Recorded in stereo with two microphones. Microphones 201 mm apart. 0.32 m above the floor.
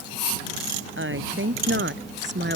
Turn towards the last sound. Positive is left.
turn(degrees=-60)  # may be behind; listen again after turning